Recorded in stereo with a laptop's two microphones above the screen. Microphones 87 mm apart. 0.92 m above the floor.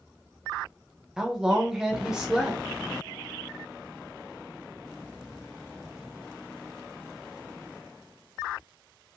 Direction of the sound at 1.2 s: 10° right (ahead or behind).